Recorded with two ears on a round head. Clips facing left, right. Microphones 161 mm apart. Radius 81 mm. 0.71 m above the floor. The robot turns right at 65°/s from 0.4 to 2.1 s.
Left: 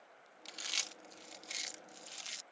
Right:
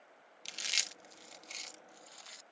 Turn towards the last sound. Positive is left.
turn(degrees=30)  # may be behind; listen again after turning